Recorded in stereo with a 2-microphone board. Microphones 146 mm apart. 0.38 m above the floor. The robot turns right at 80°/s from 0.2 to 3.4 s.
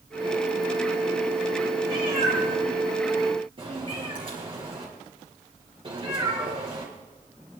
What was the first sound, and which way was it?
A cat meowing, 20° right (ahead or behind).